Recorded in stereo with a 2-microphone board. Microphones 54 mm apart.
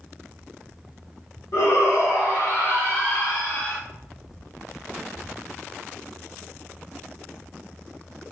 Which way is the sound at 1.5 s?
60° left (ahead or behind).